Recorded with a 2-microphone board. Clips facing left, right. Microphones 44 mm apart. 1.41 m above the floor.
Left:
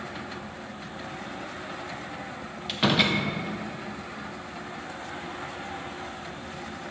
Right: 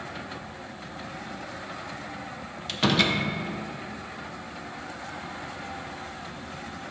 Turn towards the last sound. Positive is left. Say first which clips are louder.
# even
turn(degrees=5)  # may be behind; listen again after turning